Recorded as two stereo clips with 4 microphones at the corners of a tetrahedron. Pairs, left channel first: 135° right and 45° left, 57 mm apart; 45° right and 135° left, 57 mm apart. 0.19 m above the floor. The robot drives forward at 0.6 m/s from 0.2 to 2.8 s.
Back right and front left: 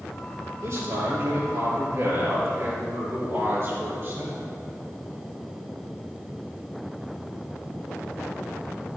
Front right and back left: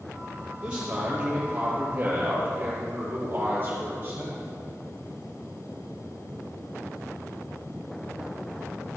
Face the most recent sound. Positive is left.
turn(degrees=80)